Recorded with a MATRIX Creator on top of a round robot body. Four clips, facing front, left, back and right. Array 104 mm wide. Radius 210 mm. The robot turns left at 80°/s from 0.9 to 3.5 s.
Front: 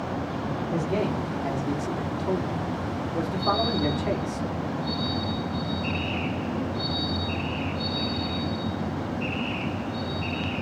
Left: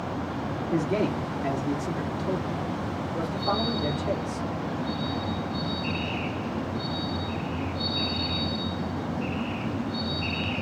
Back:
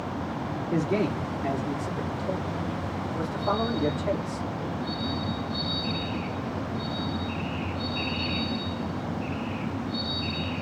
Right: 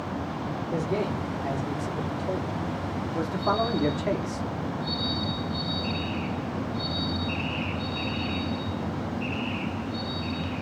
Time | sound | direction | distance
0.7 | a man speaking | 160° left | 1.7 m